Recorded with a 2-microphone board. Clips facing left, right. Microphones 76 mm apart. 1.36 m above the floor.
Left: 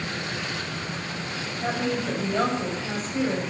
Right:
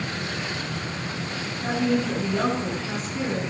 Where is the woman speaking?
40° left (ahead or behind), 8 m.